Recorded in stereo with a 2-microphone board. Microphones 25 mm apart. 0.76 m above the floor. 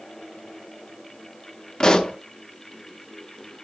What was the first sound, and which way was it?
A pop, 30° left (ahead or behind).